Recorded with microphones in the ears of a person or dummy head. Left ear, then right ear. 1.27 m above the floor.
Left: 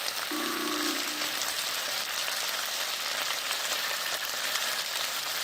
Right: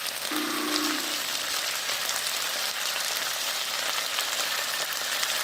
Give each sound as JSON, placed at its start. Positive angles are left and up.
{"t": 0.3, "sound": "cutlery clinking", "side_deg": -5, "distance_m": 1.6}